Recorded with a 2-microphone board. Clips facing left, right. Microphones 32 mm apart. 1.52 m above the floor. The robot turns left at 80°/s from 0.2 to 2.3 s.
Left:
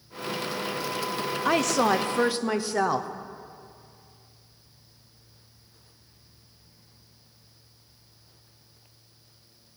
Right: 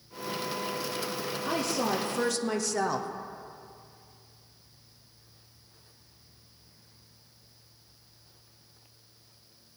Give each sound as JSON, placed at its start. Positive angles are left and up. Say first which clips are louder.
{"t": 1.4, "sound": "a woman speaking", "louder": "left 7 dB", "azimuth_deg": 90, "distance_m": 0.7}